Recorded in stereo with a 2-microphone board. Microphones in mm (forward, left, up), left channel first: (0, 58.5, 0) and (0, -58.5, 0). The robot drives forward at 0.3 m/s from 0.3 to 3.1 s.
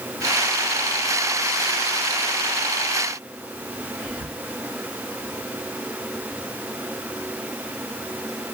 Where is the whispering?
Centre (ahead or behind), 2 m.